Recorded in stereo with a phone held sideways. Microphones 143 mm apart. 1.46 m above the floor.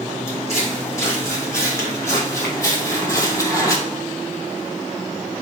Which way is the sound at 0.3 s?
20° left (ahead or behind).